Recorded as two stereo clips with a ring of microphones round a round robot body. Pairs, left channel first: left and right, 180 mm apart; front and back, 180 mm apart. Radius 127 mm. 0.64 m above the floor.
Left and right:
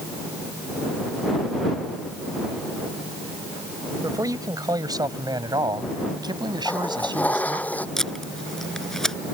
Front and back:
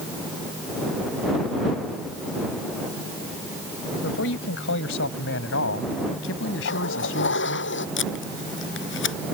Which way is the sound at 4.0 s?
20° right.